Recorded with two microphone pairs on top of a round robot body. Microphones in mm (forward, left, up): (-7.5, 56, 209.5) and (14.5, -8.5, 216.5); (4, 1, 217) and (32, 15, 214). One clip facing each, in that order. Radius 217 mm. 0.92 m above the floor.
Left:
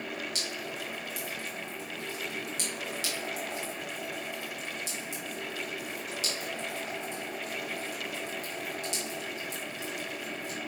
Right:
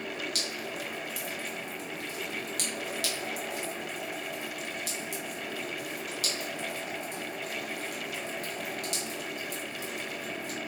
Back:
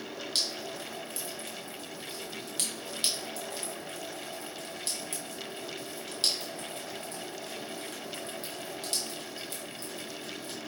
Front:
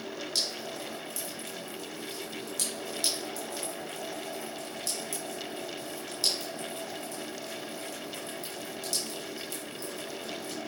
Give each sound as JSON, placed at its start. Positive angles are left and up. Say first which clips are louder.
{"t": 0.3, "sound": "dripping", "louder": "right 1 dB, back 1 dB", "azimuth_deg": -110, "distance_m": 2.5}